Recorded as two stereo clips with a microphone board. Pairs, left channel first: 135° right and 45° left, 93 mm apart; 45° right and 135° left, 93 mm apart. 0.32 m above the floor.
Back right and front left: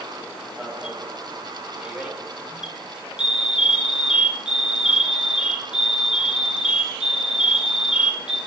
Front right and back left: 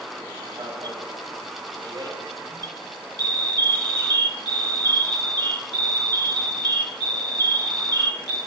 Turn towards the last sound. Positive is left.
turn(degrees=120)